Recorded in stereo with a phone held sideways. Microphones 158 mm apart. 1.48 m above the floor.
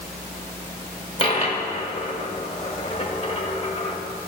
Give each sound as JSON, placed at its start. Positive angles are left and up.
{"t": 1.2, "sound": "a dropped coin", "side_deg": 40, "distance_m": 1.6}